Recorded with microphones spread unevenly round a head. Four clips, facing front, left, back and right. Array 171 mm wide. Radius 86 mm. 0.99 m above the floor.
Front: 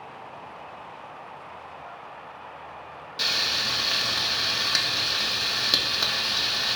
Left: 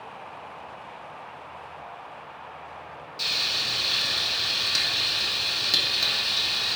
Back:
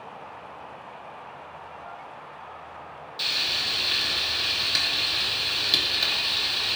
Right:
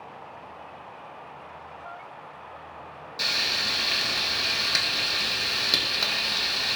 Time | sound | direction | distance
3.2 | frying | 35° right | 1.3 m